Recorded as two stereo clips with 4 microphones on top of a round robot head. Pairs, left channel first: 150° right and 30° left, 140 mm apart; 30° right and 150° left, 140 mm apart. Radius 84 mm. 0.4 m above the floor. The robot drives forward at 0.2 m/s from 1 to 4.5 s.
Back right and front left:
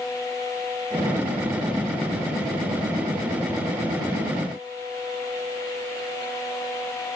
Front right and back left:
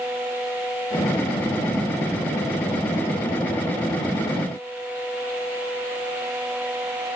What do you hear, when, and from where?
Only background noise.